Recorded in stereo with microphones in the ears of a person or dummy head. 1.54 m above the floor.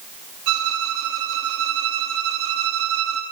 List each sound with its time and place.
0.5 s a violin: 75° right (ahead or behind), 2.5 m